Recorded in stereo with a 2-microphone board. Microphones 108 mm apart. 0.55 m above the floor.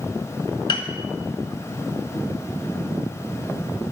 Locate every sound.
0.7 s a piano: 45° left (ahead or behind), 1.4 m